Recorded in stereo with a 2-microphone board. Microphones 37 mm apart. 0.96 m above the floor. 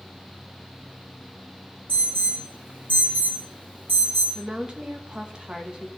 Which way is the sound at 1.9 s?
65° right (ahead or behind).